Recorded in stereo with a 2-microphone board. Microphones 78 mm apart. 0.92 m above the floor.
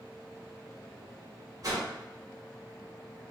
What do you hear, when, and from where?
1.6 s a whoosh: 55° right (ahead or behind), 1.2 m